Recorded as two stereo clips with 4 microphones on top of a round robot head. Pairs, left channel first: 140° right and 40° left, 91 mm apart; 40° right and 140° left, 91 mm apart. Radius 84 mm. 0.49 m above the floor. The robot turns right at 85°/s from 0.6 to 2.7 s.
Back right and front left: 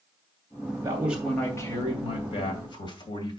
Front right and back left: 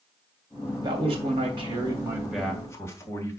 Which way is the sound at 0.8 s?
95° left.